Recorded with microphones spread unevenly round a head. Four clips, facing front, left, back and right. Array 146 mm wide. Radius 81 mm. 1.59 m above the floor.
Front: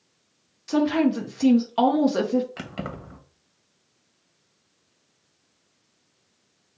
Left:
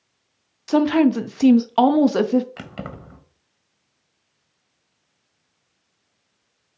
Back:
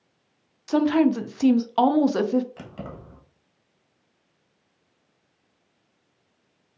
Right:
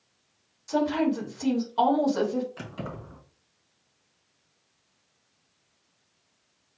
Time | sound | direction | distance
0.7 | a woman speaking | 85° left | 0.6 m
2.6 | keys jangling | 45° left | 1.2 m